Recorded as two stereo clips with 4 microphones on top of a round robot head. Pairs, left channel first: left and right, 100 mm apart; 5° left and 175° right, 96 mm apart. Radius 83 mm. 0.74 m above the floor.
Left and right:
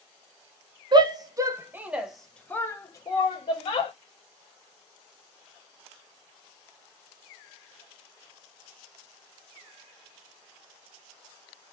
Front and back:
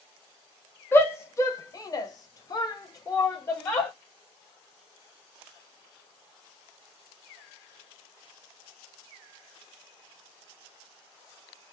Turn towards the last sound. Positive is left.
turn(degrees=65)